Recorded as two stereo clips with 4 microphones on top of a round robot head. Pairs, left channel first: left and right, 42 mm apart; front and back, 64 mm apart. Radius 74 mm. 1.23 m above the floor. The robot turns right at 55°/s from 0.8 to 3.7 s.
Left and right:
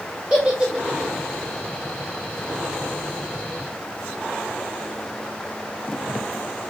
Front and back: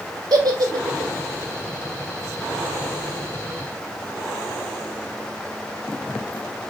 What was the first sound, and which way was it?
A giggle, 160° right.